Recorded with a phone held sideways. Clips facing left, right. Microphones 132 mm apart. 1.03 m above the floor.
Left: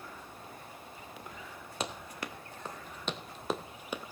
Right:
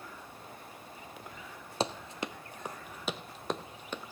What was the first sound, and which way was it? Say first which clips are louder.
Running footsteps: right 5 dB; 30° right (ahead or behind).